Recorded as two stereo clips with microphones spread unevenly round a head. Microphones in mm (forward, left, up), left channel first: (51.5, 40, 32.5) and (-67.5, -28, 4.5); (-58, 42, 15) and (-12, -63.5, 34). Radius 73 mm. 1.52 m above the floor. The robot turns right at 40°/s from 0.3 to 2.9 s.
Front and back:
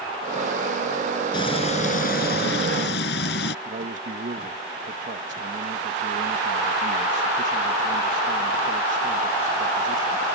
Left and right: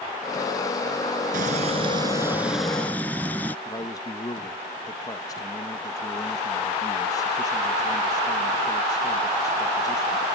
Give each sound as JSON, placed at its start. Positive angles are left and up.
{"t": 1.3, "sound": "frying", "azimuth_deg": -30}
{"t": 3.6, "sound": "a man speaking", "azimuth_deg": 175}